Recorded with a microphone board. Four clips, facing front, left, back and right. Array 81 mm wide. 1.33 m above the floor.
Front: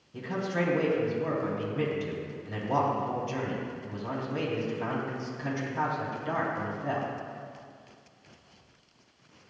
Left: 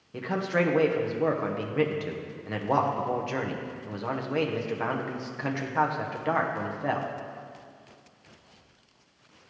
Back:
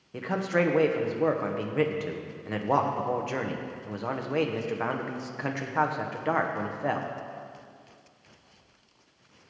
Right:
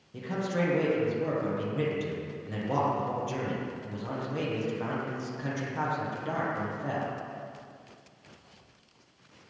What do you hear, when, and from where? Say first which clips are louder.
0.1 s a man speaking: left 4 dB, back 4 dB; 150° left, 0.9 m